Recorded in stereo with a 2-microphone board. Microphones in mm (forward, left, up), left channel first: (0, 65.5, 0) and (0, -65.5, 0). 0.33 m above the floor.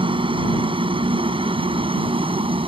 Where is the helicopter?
40° right (ahead or behind).